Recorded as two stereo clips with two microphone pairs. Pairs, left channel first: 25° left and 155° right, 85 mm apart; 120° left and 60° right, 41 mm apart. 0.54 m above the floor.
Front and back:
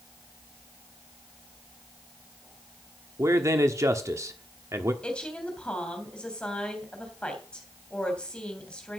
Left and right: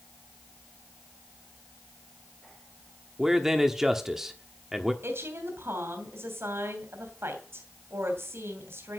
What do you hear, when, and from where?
3.2 s a man speaking: 135° right, 1.2 m
5.0 s a woman speaking: 55° right, 3 m